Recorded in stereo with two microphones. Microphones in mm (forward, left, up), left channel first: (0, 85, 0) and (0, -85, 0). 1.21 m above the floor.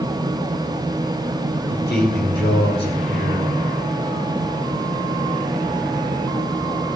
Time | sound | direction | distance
1.7 | a man speaking | 80° left | 6 m